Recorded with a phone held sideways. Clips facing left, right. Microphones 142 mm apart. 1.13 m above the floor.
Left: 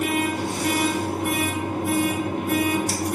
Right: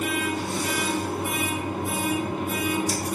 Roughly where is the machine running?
Left.